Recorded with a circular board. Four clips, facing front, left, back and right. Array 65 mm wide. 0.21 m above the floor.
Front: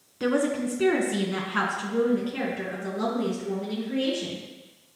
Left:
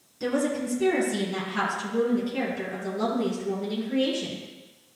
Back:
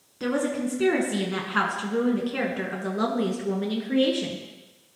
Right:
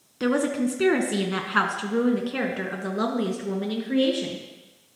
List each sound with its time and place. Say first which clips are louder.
0.2 s a woman speaking: right 3 dB, front 1 dB; 75° right, 2 m; by 4.4 s 140° right, 3 m